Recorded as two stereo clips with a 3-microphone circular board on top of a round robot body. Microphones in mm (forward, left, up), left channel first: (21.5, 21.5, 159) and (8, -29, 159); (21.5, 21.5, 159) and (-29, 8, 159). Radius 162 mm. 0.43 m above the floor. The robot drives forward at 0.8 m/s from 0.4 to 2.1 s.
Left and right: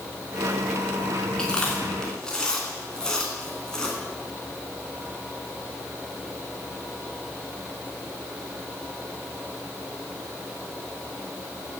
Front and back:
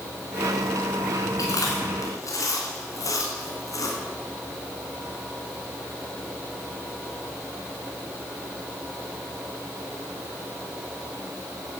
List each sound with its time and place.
1.4 s chewing: 5° right, 3.5 m